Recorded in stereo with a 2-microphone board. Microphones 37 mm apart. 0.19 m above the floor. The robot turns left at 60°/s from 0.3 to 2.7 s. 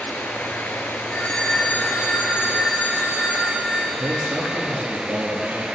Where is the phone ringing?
155° left, 1.6 m; by 4.8 s 60° left, 1.6 m.